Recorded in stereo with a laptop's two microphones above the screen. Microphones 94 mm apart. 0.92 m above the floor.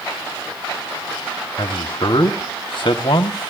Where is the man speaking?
65° left (ahead or behind), 1.5 m.